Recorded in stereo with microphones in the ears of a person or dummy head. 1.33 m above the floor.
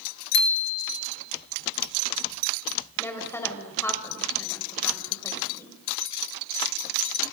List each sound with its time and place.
0.3 s a bicycle bell: 55° left (ahead or behind), 3 m
3.0 s a woman speaking: 5° left (ahead or behind), 5 m